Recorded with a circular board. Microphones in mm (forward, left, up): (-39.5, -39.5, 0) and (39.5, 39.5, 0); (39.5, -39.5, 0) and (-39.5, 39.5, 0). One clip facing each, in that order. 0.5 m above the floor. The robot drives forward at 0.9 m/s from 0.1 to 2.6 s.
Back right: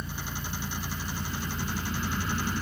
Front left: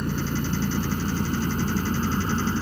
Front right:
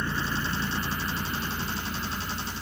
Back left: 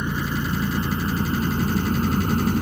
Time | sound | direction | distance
0.0 | an engine running | 65° left | ?